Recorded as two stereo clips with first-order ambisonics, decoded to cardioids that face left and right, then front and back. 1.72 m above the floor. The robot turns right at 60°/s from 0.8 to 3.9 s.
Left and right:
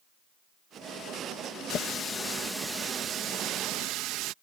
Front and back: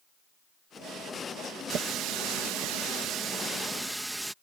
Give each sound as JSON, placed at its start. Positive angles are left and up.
{"t": 1.7, "sound": "a running tap", "azimuth_deg": 130}